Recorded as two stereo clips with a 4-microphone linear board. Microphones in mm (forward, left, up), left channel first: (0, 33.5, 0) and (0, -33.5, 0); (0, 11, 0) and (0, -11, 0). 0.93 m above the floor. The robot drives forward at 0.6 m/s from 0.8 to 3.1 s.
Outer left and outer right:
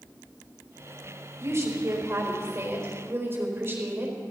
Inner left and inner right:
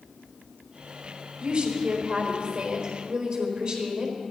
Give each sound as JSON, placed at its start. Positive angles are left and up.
{"t": 1.4, "sound": "a woman speaking", "side_deg": -50, "distance_m": 3.5}